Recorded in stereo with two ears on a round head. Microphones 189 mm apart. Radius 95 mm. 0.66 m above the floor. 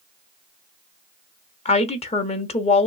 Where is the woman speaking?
30° left (ahead or behind), 0.8 m.